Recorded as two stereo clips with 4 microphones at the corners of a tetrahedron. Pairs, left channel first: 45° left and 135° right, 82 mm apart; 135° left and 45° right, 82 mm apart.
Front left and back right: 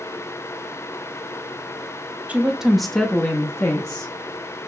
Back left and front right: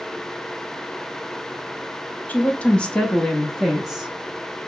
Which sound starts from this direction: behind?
A woman speaking, at 2.3 s.